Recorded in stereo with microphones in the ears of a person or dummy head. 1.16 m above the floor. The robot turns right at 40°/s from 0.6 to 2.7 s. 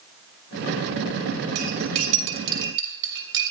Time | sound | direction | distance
1.6 | cutlery clinking | 70° right (ahead or behind) | 3.5 m